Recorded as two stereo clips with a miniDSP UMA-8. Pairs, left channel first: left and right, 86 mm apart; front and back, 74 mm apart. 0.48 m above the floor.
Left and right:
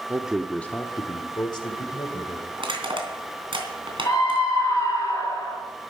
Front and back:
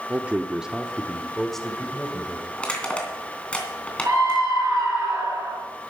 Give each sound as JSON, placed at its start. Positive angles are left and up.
{"t": 0.1, "sound": "a man speaking", "azimuth_deg": -130, "distance_m": 0.9}
{"t": 2.6, "sound": "crushing", "azimuth_deg": -75, "distance_m": 3.0}
{"t": 4.0, "sound": "a scream", "azimuth_deg": 140, "distance_m": 7.5}